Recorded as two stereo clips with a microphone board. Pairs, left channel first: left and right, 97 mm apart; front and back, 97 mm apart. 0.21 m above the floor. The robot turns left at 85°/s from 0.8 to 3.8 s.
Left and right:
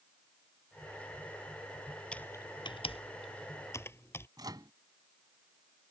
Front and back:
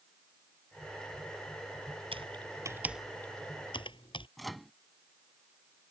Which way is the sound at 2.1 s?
170° left.